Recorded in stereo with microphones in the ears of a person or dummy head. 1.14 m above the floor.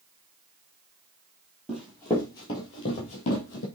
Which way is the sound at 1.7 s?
5° right (ahead or behind).